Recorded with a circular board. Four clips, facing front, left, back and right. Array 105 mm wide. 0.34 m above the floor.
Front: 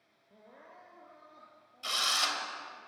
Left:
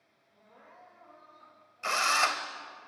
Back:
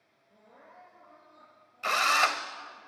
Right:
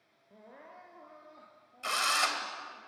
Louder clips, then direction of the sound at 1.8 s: Left 3 dB, back 9 dB; 160° left.